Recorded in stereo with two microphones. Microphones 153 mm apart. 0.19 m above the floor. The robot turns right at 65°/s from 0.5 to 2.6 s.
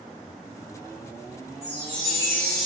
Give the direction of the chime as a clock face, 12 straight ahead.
7 o'clock.